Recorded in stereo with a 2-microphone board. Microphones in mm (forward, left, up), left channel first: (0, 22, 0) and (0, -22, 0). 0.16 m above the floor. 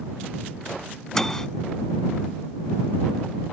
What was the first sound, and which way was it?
A microwave, 10° left (ahead or behind).